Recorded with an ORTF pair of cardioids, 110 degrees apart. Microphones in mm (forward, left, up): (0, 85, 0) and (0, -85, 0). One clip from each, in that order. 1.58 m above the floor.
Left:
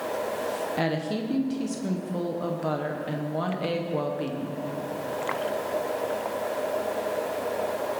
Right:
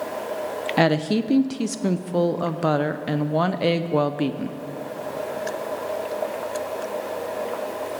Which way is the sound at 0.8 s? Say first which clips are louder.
Right 7 dB; 45° right.